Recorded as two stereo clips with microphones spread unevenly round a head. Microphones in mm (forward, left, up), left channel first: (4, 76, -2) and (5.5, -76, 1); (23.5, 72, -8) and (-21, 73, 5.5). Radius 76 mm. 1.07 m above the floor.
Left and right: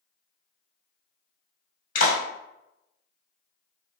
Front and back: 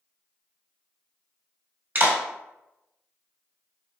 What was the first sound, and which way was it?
A clap, 130° left.